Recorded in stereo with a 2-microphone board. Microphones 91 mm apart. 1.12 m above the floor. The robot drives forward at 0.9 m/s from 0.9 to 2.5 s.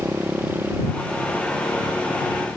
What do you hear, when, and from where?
0.0 s a motorcycle: 20° right (ahead or behind); by 2.6 s 15° right (ahead or behind)